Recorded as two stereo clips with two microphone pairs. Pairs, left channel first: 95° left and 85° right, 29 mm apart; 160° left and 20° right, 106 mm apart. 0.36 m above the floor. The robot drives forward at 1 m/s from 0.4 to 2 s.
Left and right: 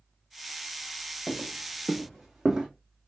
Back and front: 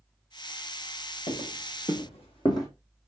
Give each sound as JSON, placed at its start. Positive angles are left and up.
{"t": 1.3, "sound": "footsteps", "azimuth_deg": 160, "distance_m": 1.9}